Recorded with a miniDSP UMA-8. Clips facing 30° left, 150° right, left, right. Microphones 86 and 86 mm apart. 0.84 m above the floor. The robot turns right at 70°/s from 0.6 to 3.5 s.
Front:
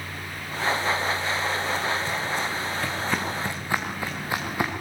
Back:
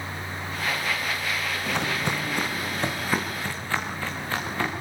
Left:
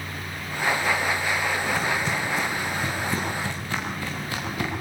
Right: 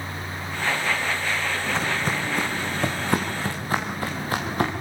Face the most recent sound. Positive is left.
turn(degrees=-45)